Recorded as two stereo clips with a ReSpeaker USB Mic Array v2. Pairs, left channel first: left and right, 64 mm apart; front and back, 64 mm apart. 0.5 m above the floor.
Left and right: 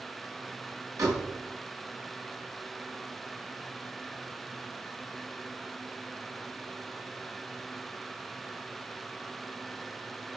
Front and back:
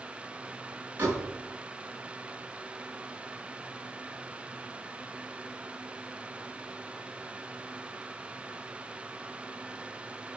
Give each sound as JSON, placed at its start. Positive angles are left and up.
{"t": 1.0, "sound": "a door slam", "azimuth_deg": -125, "distance_m": 5.0}